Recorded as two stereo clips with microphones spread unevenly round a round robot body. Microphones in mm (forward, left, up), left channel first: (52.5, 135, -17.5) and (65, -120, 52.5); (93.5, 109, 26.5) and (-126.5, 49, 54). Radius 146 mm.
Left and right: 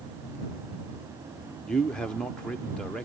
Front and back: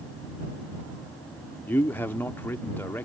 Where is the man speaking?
60° left.